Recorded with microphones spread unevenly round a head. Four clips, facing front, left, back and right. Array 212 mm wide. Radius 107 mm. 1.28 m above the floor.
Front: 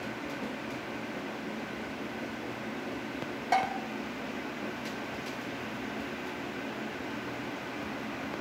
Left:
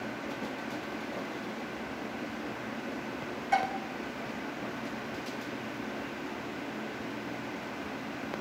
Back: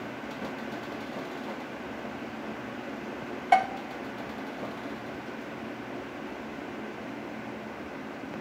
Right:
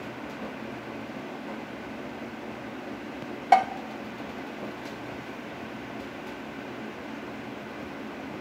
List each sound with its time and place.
3.5 s dishes clattering: 105° right, 1.0 m